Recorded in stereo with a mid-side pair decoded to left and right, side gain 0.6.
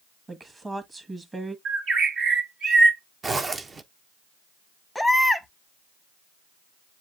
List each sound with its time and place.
0.3 s a woman speaking: 20° right, 1.7 m
1.6 s a bird: 55° right, 1.9 m
3.2 s a zipper: 25° right, 0.7 m
5.0 s a baby crying: straight ahead, 1.0 m